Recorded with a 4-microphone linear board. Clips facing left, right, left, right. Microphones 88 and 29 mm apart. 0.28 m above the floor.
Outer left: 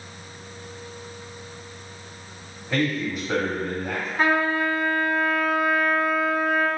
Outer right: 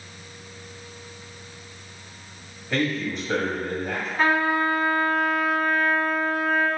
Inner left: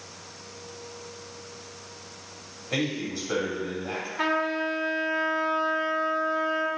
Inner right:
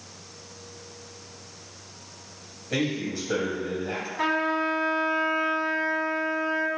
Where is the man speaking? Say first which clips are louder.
Outer left 1 dB, inner right 1 dB; 5° left (ahead or behind), 1.4 m.